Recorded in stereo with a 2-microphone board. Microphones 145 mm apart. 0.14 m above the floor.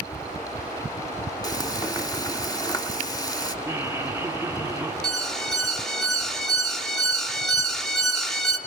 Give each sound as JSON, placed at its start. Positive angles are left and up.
{"t": 1.4, "sound": "frying", "side_deg": 25, "distance_m": 1.5}
{"t": 3.6, "sound": "laughter", "side_deg": -15, "distance_m": 1.3}
{"t": 5.0, "sound": "an alarm", "side_deg": 0, "distance_m": 2.0}